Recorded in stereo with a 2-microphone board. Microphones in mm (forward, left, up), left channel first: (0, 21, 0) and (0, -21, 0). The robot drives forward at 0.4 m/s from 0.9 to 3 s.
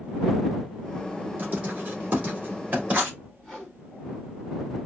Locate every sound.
1.4 s writing: 45° right (ahead or behind), 1.8 m; by 3.2 s 35° right (ahead or behind), 2.5 m
3.4 s a whoosh: 10° left (ahead or behind), 1.6 m